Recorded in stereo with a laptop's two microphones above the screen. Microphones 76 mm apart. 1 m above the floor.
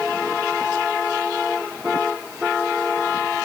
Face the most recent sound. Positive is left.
No sound to turn to.